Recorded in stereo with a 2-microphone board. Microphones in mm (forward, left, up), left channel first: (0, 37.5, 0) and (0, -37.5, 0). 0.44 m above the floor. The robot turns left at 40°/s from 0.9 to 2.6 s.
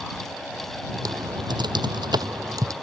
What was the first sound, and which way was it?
Typing on a keyboard, 65° right (ahead or behind).